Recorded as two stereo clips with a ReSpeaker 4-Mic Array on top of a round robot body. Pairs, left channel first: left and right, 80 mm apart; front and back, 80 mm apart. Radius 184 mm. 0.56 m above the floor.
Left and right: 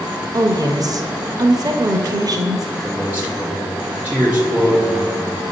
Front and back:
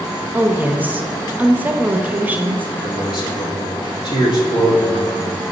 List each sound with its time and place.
0.3 s a woman speaking: 115° right, 0.9 m
2.8 s a man speaking: 15° right, 2.5 m